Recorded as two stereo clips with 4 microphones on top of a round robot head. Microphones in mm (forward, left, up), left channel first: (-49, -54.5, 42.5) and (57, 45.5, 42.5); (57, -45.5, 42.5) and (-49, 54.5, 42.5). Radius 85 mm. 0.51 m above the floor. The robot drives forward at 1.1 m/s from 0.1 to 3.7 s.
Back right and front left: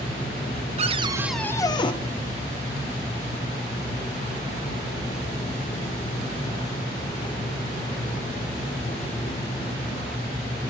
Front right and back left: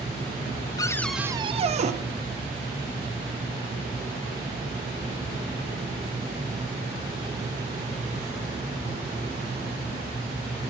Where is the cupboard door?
15° left, 0.7 m; by 1.9 s 170° left, 0.9 m.